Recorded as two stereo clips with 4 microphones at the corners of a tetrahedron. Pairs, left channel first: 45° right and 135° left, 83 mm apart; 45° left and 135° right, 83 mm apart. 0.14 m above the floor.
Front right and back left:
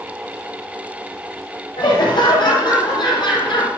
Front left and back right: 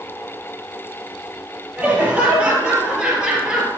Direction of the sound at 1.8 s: 60° right.